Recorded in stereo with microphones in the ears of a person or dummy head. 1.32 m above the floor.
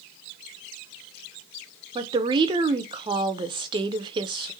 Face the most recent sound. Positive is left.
turn(degrees=-25)  # may be behind; listen again after turning